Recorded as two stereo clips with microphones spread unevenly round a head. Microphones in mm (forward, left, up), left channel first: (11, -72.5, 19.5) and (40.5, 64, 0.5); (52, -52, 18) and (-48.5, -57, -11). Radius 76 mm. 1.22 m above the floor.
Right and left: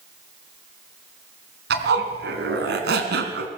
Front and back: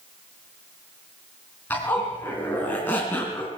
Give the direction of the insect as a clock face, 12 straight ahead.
No insect in this recording.